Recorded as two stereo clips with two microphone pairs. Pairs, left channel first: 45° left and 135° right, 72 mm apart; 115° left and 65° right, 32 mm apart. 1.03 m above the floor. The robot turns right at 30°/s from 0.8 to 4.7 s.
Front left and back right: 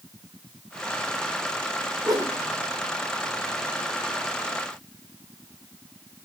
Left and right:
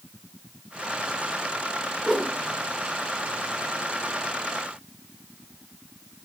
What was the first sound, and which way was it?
A whoosh, 150° right.